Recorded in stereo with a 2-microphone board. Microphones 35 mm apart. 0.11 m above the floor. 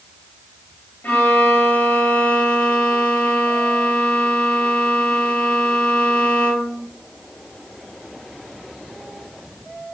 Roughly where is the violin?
Left.